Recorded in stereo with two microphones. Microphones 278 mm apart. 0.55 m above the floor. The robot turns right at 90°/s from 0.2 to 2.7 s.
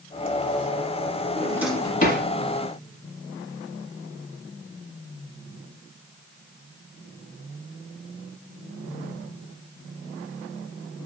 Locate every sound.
1.4 s a drawer: 30° right (ahead or behind), 1.2 m; by 2.2 s 50° left (ahead or behind), 1.2 m